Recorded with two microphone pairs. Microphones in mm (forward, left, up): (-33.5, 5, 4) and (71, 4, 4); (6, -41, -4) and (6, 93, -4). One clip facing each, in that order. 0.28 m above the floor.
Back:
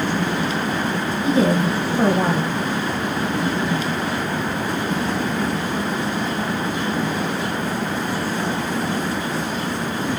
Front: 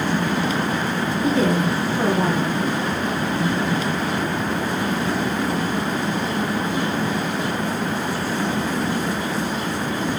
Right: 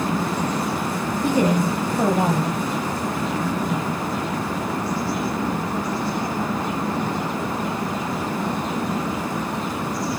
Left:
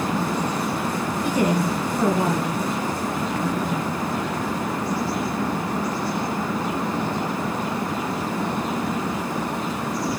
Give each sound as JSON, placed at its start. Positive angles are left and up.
{"t": 1.2, "sound": "a woman speaking", "azimuth_deg": -125, "distance_m": 1.3}